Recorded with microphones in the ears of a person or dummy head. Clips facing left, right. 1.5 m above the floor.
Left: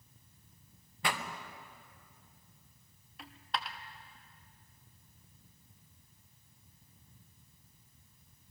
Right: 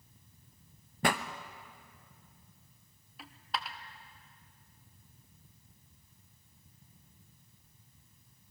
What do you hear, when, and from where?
1.0 s a pop: 40° right (ahead or behind), 0.8 m
3.2 s a dropped coin: 5° right (ahead or behind), 1.0 m